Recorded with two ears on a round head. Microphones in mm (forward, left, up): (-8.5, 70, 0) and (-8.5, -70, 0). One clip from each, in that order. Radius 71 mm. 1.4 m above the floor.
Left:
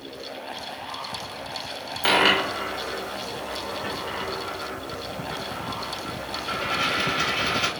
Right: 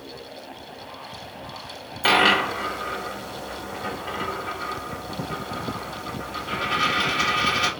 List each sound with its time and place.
2.0 s a dropped coin: 10° left (ahead or behind), 1.1 m